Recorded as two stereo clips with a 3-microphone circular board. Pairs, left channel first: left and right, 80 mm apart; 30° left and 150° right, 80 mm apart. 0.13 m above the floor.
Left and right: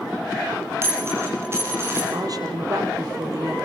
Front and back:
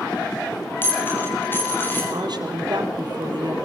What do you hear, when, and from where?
0.8 s a dropped coin: 35° right, 8.5 m
2.1 s a woman speaking: 125° right, 3.5 m